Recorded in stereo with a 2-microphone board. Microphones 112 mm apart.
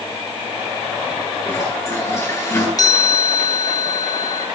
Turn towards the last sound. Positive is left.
turn(degrees=30)  # may be behind; listen again after turning